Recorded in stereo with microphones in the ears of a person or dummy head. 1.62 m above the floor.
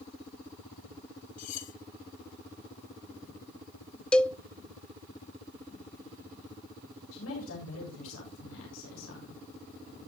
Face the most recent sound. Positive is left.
turn(degrees=85)